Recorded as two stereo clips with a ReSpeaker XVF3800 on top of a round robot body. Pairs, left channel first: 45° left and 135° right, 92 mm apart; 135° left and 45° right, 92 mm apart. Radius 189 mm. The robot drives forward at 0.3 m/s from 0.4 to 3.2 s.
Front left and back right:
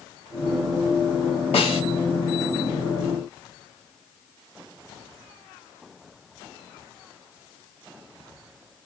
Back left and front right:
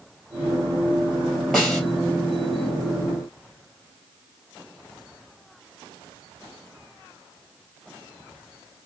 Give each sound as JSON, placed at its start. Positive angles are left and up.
{"t": 1.5, "sound": "a snare drum", "azimuth_deg": 50, "distance_m": 3.0}